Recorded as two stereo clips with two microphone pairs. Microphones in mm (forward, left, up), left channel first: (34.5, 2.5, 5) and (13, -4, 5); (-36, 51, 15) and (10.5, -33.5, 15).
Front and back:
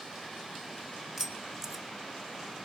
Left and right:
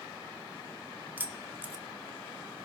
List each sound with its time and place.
1.2 s keys jangling: 95° right, 1.1 m